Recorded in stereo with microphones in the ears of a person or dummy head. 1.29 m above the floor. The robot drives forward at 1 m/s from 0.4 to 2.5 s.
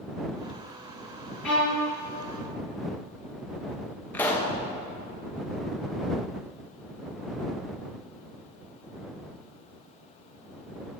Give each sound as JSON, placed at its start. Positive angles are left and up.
{"t": 1.4, "sound": "a violin", "side_deg": 0, "distance_m": 3.0}
{"t": 4.1, "sound": "a pop", "side_deg": 10, "distance_m": 0.9}